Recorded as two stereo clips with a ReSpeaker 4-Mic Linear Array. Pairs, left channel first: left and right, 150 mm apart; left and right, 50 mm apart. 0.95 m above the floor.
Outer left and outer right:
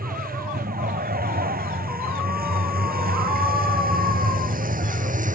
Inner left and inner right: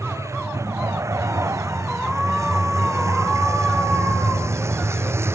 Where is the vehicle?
80° right; by 5.4 s 60° right (ahead or behind).